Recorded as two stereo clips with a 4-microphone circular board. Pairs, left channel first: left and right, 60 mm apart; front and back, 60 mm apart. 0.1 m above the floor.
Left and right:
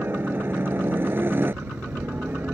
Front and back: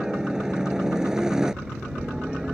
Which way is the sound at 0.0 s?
105° right.